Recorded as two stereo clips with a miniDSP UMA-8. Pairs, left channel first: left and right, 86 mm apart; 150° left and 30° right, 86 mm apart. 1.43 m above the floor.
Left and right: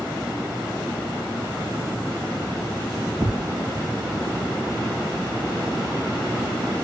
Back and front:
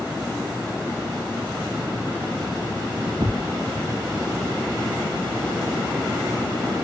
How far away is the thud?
About 2.5 m.